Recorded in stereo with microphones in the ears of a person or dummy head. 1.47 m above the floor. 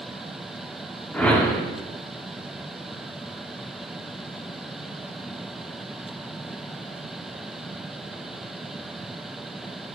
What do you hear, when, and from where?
1.1 s a whoosh: 5° left (ahead or behind), 0.8 m